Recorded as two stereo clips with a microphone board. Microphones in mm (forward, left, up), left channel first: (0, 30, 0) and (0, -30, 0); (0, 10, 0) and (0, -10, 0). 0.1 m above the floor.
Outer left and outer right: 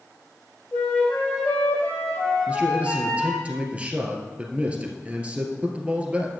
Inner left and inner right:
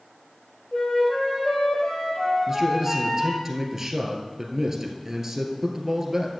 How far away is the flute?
About 3.5 m.